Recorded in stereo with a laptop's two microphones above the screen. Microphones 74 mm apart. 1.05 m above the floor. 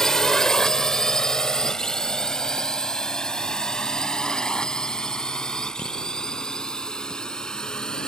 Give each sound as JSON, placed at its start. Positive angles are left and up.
{"t": 0.0, "sound": "a drone", "side_deg": 5}